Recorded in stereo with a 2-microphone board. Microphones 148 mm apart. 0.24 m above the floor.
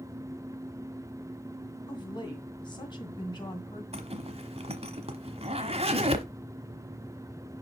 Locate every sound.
1.9 s a woman speaking: 30° left (ahead or behind), 2 m
3.9 s a zipper: 40° right (ahead or behind), 1.2 m